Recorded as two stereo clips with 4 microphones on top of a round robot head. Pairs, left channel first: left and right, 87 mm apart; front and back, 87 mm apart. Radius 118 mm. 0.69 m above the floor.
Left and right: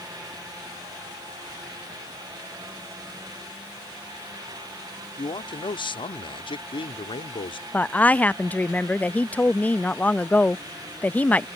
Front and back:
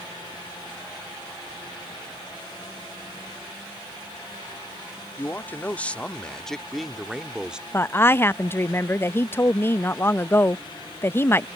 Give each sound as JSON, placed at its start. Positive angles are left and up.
{"t": 5.2, "sound": "a man speaking", "azimuth_deg": 65}
{"t": 7.7, "sound": "a woman speaking", "azimuth_deg": 35}